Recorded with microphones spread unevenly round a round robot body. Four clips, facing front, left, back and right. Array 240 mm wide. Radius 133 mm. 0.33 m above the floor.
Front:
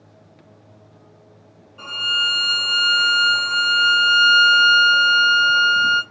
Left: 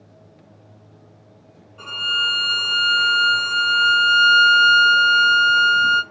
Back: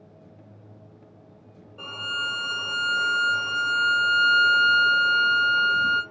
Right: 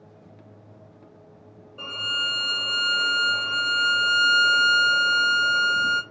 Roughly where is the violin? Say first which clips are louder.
Left 5 dB, front 5 dB; behind right.